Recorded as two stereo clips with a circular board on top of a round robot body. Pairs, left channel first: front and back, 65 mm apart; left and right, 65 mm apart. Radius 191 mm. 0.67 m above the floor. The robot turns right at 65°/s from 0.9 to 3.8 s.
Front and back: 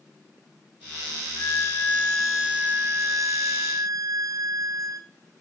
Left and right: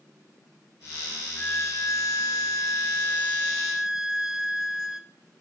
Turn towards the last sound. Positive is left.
turn(degrees=-170)